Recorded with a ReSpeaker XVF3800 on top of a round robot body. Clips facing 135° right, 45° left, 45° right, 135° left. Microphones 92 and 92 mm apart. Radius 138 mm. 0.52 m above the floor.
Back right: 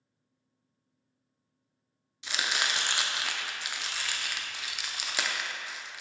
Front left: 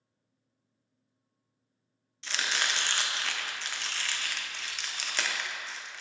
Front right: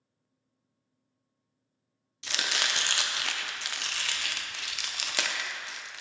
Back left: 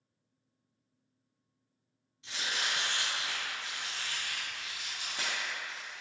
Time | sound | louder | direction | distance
2.2 | chopping | back right 1 dB, front right 4 dB | 55° right | 0.5 m